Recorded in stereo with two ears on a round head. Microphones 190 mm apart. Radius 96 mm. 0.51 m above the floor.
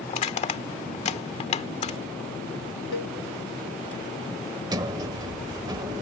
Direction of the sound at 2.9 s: 65° left (ahead or behind).